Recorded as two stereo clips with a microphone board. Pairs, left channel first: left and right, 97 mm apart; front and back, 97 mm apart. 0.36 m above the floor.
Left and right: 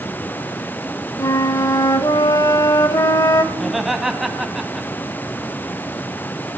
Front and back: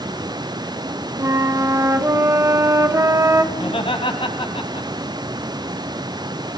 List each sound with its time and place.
1.2 s a flute: 130° left, 1.0 m
3.5 s laughter: 5° right, 2 m